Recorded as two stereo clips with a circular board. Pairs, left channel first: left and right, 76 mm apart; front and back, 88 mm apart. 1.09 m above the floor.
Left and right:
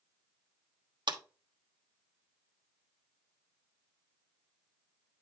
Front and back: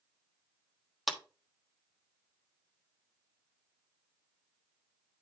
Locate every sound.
1.1 s a clap: 90° right, 1.3 m